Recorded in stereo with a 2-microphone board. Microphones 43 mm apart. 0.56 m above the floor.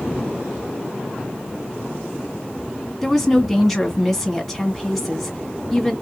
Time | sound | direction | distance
3.0 | a woman speaking | centre (ahead or behind) | 1.7 m